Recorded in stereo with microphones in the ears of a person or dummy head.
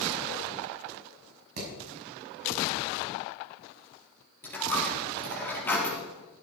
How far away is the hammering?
About 6 m.